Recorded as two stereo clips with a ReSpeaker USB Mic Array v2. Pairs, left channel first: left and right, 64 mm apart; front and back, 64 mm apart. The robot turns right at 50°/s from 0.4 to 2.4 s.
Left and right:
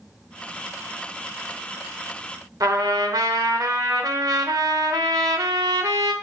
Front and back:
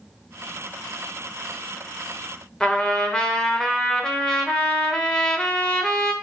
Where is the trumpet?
75° right, 0.7 m.